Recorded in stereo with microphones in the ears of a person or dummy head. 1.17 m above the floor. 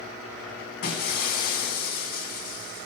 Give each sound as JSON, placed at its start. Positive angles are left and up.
{"t": 0.8, "sound": "breaking glass", "side_deg": 50, "distance_m": 3.0}